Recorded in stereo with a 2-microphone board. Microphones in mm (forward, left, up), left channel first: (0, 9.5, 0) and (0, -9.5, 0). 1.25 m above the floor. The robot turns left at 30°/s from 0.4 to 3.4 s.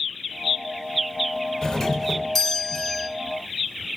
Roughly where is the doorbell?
Ahead left.